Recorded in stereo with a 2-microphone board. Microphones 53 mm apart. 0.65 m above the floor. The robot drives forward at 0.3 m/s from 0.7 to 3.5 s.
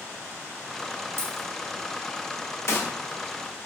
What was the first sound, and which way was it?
A dropped coin, 60° right (ahead or behind).